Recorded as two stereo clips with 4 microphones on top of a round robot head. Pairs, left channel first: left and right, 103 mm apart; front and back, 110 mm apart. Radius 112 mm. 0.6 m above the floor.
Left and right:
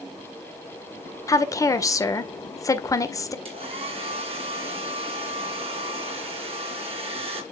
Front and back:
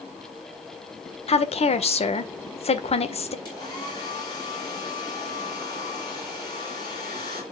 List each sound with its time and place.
1.3 s a woman speaking: 30° left, 1.9 m
3.5 s a hair dryer: 60° right, 4 m